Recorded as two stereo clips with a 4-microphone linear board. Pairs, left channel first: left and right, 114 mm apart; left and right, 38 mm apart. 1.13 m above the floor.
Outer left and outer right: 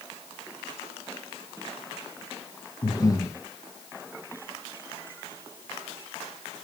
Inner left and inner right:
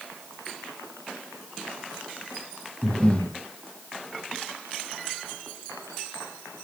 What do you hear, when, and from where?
2.8 s breathing: 30° left (ahead or behind), 0.7 m